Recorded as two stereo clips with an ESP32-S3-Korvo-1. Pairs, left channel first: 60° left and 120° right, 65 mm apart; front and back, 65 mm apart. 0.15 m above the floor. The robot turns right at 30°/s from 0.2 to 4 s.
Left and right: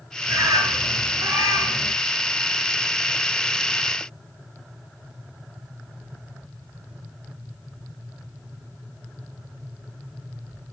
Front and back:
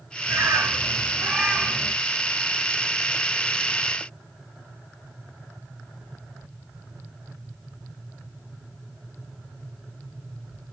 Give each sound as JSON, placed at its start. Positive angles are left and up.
{"t": 0.3, "sound": "a bird", "azimuth_deg": -140, "distance_m": 1.1}